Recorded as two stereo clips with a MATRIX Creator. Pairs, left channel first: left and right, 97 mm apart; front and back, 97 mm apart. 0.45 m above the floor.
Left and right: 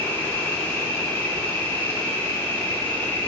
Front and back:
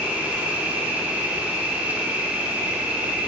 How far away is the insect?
About 0.9 m.